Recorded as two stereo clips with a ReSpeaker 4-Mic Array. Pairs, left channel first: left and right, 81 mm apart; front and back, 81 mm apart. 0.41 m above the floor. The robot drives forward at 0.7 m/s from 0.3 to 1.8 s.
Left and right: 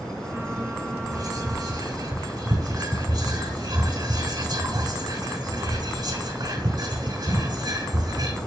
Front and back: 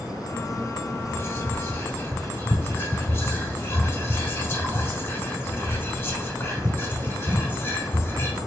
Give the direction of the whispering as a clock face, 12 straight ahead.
2 o'clock.